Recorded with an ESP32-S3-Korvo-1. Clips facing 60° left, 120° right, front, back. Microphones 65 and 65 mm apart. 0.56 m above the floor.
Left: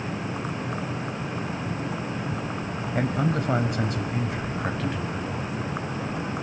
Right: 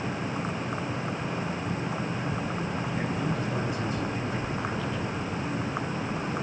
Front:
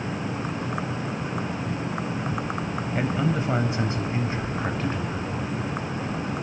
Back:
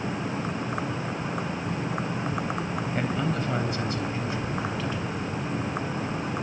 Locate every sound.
3.0 s a man speaking: 80° left, 3.5 m; by 5.5 s 40° left, 4.5 m